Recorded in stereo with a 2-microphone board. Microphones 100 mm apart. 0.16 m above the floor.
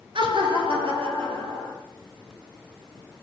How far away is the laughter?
About 2.5 m.